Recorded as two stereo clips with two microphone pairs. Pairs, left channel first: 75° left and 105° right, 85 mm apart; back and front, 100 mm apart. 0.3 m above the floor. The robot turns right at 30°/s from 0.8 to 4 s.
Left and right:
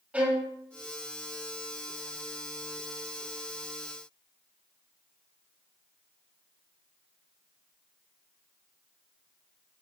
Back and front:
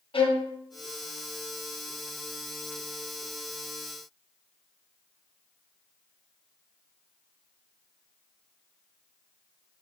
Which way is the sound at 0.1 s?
175° right.